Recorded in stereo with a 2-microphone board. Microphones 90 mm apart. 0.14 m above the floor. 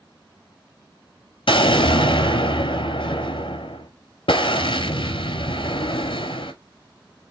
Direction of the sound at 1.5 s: 75° left (ahead or behind).